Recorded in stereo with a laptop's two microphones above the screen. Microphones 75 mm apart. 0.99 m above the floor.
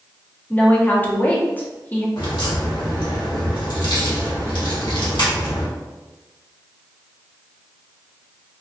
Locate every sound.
0.5 s a woman speaking: 25° left (ahead or behind), 0.7 m
2.2 s a crack: 75° left (ahead or behind), 1.1 m